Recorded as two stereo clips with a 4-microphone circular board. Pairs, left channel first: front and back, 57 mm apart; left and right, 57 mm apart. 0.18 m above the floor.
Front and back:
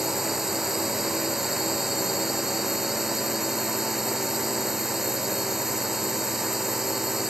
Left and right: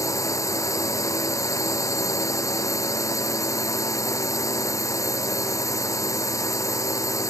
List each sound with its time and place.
0.0 s a drone: 95° left